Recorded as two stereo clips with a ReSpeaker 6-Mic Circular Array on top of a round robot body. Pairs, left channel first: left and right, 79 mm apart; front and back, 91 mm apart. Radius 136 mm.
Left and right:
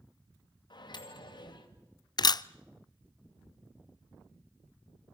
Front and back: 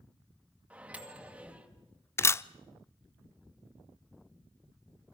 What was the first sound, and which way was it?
A microwave, 105° left.